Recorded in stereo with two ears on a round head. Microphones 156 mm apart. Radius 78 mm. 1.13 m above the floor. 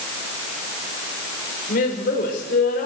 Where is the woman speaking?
55° left (ahead or behind), 4.5 m.